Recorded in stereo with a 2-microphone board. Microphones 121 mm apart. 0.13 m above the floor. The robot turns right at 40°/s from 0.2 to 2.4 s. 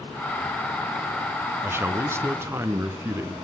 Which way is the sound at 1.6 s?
20° right (ahead or behind).